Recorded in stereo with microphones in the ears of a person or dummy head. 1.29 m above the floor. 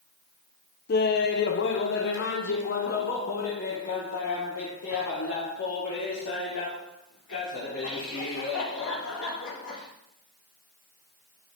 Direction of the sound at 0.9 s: 45° left (ahead or behind).